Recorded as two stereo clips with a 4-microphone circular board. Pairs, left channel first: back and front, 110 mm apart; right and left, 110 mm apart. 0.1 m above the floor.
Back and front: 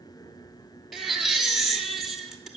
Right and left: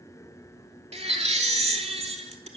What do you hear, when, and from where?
0.9 s a baby crying: 90° left, 0.9 m